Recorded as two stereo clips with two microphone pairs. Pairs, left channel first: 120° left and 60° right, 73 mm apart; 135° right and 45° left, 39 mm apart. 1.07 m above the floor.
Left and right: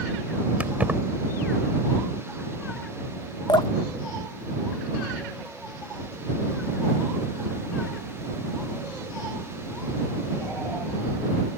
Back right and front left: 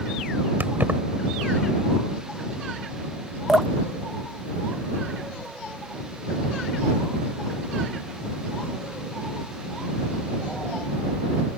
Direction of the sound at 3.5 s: 130° left.